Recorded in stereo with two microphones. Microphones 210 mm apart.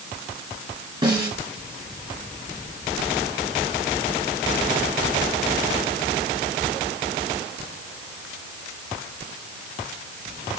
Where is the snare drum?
20° right (ahead or behind), 2.5 m.